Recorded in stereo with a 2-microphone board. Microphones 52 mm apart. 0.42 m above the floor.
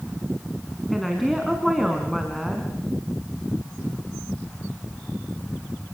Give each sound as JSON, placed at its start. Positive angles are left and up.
{"t": 0.9, "sound": "a woman speaking", "side_deg": 0, "distance_m": 4.0}